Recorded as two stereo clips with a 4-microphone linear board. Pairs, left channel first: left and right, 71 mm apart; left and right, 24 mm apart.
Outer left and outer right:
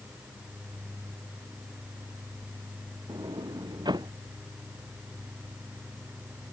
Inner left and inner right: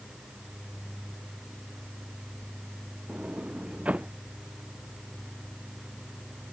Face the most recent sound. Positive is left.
turn(degrees=-85)